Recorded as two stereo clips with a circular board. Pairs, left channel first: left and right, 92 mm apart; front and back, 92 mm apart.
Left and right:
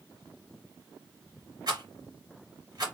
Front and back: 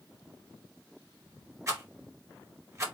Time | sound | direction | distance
1.7 | a rattle | 125° right | 2 m